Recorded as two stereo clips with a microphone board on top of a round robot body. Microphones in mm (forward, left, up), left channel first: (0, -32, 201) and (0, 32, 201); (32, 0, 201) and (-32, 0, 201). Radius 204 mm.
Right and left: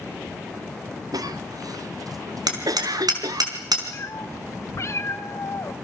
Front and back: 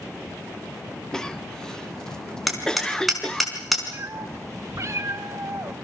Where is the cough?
80° left, 1.9 m.